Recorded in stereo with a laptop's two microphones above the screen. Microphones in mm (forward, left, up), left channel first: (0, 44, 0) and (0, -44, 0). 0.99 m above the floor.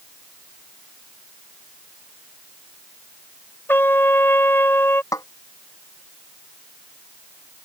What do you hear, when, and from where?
3.7 s a trumpet: 25° left (ahead or behind)
5.1 s a snare drum: 35° left (ahead or behind)